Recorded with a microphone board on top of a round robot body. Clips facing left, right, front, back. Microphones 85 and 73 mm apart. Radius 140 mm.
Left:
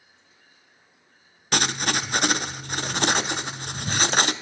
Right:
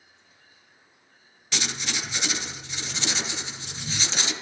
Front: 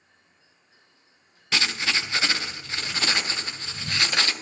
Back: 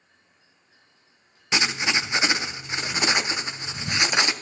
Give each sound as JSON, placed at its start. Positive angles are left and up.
{"t": 1.5, "sound": "writing", "azimuth_deg": 115, "distance_m": 0.5}